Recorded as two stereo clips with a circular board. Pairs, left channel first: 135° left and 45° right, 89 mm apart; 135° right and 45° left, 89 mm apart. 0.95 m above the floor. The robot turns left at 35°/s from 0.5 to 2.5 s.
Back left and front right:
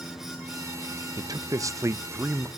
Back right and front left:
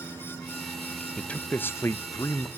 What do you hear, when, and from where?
1.2 s a man speaking: 60° right, 0.6 m; by 2.5 s 105° right, 0.6 m